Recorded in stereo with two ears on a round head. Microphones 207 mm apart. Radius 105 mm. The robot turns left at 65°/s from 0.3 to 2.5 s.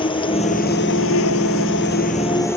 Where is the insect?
155° left; by 2.6 s 10° left.